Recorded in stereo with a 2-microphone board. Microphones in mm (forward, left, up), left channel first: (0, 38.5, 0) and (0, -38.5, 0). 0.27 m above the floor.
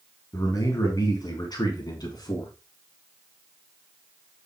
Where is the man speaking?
50° left (ahead or behind), 3 m; by 2.5 s 60° left (ahead or behind), 3.5 m.